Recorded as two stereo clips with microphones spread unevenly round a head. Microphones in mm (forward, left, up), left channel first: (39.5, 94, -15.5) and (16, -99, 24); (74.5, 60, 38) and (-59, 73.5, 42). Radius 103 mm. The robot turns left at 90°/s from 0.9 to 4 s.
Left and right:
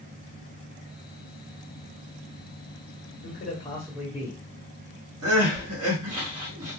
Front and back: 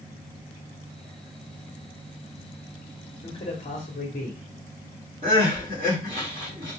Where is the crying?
125° right, 1.3 m.